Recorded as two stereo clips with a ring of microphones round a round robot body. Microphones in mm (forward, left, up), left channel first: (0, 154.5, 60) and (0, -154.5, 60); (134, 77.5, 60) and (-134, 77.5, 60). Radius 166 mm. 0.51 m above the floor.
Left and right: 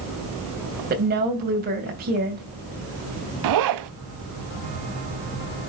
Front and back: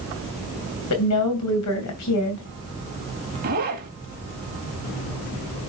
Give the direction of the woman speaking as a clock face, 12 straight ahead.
1 o'clock.